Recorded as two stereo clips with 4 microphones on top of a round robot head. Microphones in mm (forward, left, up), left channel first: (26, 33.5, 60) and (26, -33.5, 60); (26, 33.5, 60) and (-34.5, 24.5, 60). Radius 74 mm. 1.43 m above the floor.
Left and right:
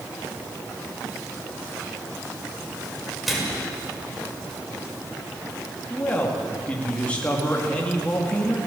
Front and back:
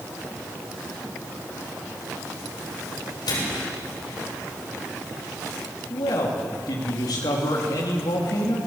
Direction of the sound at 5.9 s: 15° left.